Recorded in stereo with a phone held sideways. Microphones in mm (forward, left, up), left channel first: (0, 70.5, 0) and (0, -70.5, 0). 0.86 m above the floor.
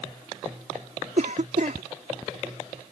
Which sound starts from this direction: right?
A cough, at 1.2 s.